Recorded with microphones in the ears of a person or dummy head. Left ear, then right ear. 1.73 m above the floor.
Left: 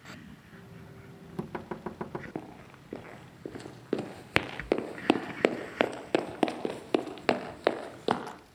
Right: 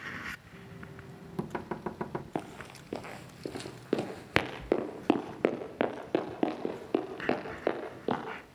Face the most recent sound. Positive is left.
turn(degrees=60)  # may be behind; listen again after turning